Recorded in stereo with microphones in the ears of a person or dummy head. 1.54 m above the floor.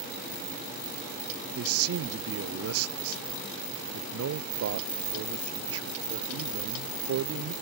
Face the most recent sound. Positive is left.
turn(degrees=-70)  # may be behind; listen again after turning